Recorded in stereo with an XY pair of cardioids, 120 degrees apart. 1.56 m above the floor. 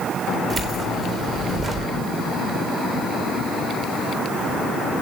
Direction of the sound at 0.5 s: 30° right.